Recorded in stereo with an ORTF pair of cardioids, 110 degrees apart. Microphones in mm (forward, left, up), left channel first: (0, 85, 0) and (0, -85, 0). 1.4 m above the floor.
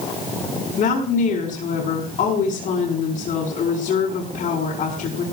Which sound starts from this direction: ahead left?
A woman speaking, at 0.8 s.